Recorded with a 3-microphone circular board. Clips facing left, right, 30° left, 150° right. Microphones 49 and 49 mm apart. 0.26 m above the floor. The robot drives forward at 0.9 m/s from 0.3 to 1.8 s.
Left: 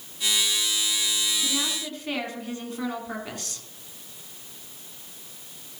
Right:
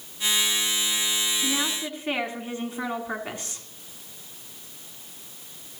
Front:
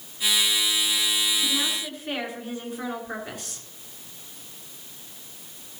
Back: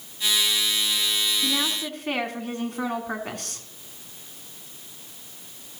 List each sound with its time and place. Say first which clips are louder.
1.4 s a woman speaking: right 1 dB, back 1 dB; 150° right, 2.5 m; by 3.6 s 155° right, 2.5 m